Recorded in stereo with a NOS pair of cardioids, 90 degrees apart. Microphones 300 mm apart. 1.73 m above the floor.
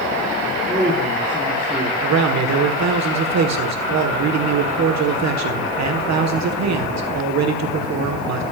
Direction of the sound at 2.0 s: 60° right.